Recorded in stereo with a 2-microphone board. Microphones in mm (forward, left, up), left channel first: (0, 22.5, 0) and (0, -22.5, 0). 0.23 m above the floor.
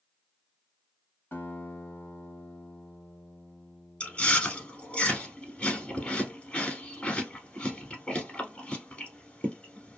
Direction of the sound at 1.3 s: 50° left (ahead or behind).